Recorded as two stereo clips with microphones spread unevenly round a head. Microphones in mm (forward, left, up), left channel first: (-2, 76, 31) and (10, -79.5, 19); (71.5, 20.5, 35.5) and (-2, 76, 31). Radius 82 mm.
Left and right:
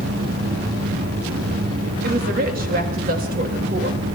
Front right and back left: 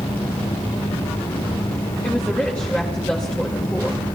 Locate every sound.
0.0 s a fan: 75° right, 3 m
2.0 s a woman speaking: 115° right, 2 m